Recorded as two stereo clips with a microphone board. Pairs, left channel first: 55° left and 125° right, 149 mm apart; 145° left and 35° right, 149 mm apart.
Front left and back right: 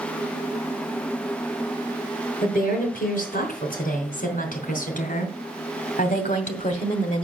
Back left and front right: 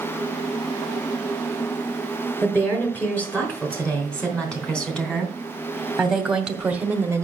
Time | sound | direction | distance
2.4 | a woman speaking | 65° left | 5.5 m